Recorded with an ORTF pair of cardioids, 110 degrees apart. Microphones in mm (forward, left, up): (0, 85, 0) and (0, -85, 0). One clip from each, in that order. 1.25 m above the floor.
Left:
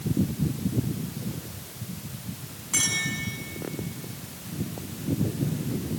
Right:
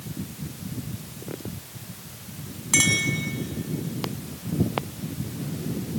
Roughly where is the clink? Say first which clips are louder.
Right 5 dB; ahead right.